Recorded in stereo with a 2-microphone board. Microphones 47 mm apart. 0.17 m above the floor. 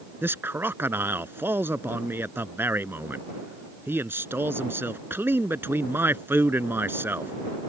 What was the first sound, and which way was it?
A man speaking, 55° right (ahead or behind).